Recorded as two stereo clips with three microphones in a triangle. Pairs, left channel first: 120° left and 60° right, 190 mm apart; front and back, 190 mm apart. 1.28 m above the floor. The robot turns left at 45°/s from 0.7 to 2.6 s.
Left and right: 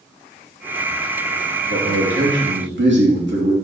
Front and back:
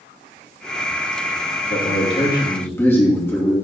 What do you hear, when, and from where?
1.7 s a man speaking: 35° right, 2.5 m; by 3.5 s 80° right, 2.5 m